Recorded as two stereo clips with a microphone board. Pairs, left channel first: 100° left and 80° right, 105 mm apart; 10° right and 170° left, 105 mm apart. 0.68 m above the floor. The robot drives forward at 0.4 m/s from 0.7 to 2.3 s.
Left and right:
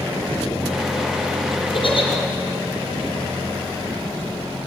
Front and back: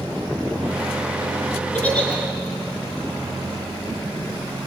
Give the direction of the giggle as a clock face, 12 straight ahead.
10 o'clock.